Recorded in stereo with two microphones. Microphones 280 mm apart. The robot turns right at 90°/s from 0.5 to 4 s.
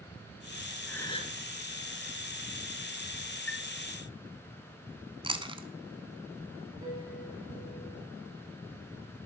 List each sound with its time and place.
0.9 s a gasp: straight ahead, 1.4 m; by 1.4 s 45° left, 1.4 m
3.5 s a chime: 60° left (ahead or behind), 0.7 m; by 3.7 s 50° left (ahead or behind), 0.7 m
5.2 s chewing: 20° right (ahead or behind), 0.9 m
6.8 s a piano: 15° right (ahead or behind), 7 m